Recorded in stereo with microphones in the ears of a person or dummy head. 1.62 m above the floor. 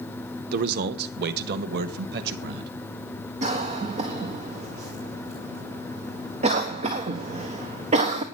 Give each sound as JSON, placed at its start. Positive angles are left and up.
{"t": 0.5, "sound": "a man speaking", "side_deg": -60, "distance_m": 0.9}
{"t": 3.4, "sound": "a cough", "side_deg": -30, "distance_m": 1.4}